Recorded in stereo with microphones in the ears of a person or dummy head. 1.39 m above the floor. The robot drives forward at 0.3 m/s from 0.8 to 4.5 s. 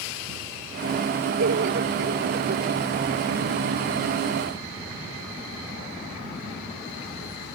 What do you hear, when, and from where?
1.4 s laughter: 60° right (ahead or behind); by 2.7 s 50° right (ahead or behind)